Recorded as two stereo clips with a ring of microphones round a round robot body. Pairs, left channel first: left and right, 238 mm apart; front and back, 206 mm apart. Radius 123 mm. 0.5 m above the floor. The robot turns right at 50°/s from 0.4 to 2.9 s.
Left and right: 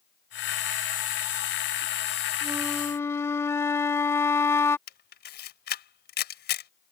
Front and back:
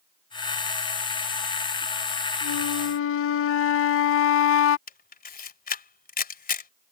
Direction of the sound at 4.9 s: 45° left.